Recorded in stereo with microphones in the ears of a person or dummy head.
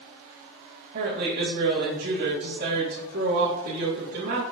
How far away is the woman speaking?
About 1.6 m.